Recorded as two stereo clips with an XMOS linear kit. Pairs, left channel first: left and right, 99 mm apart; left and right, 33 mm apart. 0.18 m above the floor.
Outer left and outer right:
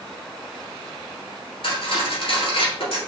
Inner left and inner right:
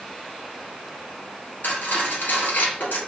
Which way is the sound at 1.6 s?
65° left (ahead or behind).